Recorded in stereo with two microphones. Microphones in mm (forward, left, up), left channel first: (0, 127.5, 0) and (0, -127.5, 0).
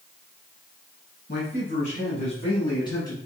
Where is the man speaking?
35° left (ahead or behind), 1.7 m; by 3.2 s 15° left (ahead or behind), 2 m.